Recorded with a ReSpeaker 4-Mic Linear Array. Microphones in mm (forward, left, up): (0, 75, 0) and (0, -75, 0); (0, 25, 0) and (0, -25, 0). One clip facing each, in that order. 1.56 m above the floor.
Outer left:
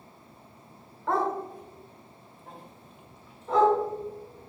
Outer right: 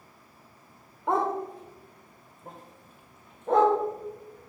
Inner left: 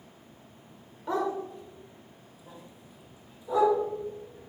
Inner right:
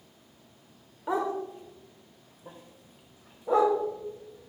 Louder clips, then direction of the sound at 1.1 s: Outer right 1 dB, inner right 1 dB; 15° right (ahead or behind).